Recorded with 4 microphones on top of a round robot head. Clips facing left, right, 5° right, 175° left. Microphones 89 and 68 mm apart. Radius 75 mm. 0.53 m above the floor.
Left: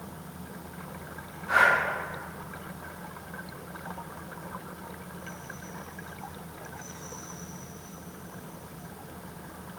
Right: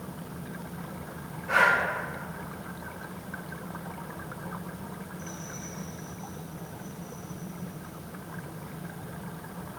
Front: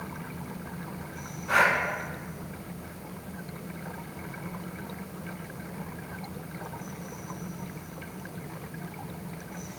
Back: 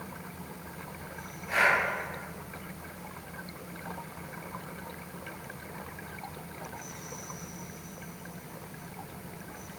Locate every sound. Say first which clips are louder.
1.5 s breathing: left 1 dB, front 2 dB; 10° left, 1.4 m